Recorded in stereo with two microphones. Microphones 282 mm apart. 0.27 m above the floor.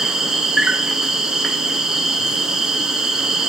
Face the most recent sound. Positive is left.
turn(degrees=0)  # may be behind; listen again after turning